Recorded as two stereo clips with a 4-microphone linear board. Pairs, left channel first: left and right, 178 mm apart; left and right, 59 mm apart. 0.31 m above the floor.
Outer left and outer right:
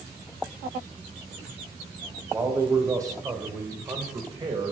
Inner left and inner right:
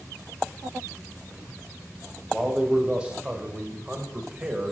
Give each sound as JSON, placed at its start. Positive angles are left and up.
{"t": 2.3, "sound": "a man speaking", "side_deg": -15, "distance_m": 1.9}